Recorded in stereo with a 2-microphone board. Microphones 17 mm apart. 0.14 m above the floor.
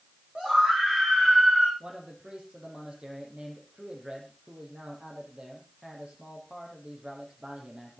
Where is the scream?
75° right (ahead or behind), 9 m; by 1.7 s 80° right, 9 m.